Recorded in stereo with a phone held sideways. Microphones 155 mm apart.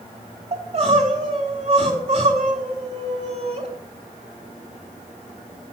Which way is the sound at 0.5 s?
40° right (ahead or behind).